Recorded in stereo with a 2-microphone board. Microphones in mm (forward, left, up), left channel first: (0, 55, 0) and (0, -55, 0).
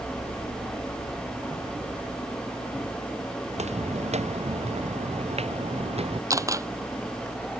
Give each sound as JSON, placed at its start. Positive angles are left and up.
{"t": 3.5, "sound": "footsteps", "side_deg": -85}
{"t": 6.3, "sound": "a camera shutter", "side_deg": -30}